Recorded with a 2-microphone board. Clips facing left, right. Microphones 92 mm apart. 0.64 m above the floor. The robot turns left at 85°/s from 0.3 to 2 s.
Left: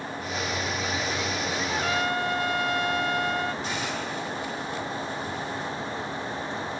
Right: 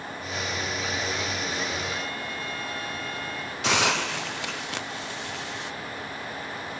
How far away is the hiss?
About 0.7 m.